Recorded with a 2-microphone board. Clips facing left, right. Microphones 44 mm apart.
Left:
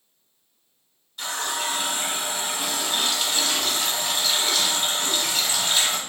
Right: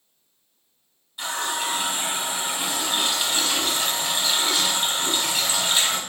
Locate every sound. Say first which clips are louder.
1.2 s a running tap: right 1 dB; 10° right (ahead or behind), 0.9 m